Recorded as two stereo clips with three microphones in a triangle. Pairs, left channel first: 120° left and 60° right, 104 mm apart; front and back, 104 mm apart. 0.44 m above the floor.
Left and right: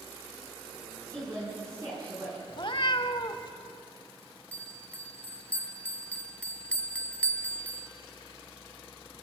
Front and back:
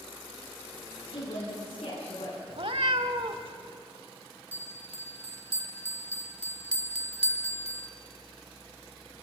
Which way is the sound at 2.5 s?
155° left.